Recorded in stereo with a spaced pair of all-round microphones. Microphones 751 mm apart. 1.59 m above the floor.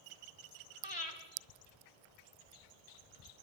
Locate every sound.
0.8 s breathing: 40° left (ahead or behind), 2.5 m